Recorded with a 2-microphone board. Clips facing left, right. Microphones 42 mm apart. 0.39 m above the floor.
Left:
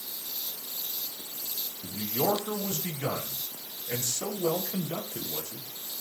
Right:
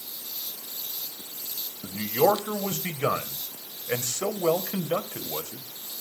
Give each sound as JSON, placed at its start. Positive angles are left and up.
{"t": 1.8, "sound": "a man speaking", "side_deg": -55, "distance_m": 1.9}